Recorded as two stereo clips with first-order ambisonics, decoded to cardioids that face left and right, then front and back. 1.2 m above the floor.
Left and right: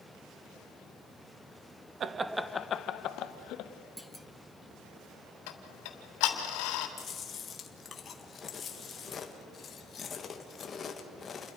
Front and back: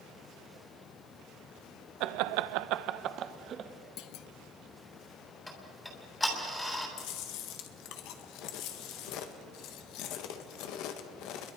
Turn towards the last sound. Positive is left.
turn(degrees=25)